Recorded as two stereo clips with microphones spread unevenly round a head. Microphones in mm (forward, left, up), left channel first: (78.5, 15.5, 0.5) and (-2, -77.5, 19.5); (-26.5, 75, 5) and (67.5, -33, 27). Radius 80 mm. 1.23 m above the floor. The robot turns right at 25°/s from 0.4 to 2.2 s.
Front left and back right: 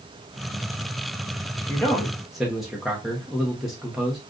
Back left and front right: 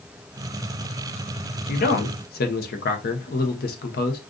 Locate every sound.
1.7 s a man speaking: 125° left, 0.8 m; by 4.2 s 140° left, 0.8 m